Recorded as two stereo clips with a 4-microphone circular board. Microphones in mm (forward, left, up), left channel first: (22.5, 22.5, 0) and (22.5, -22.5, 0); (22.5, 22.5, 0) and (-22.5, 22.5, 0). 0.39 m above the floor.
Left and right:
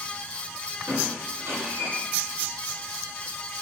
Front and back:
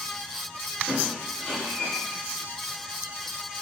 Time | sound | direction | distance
0.9 | a squeak | 85° right | 3 m